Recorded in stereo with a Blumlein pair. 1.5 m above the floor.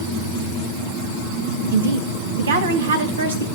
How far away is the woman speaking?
About 2.5 m.